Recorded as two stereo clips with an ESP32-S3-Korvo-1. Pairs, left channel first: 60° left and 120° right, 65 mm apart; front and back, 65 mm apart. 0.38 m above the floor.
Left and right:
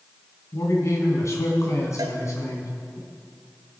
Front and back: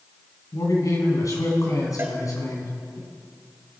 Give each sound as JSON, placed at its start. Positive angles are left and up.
{"t": 0.5, "sound": "a man speaking", "azimuth_deg": 25, "distance_m": 3.0}
{"t": 2.0, "sound": "a cowbell", "azimuth_deg": -125, "distance_m": 1.3}